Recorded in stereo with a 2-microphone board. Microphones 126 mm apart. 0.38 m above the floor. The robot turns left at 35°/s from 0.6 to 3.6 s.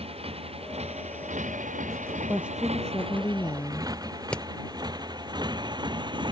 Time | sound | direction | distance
0.0 | a motorcycle | 55° right (ahead or behind) | ?
2.3 | a woman speaking | 165° right | ?
4.3 | hammering | 10° left (ahead or behind) | ?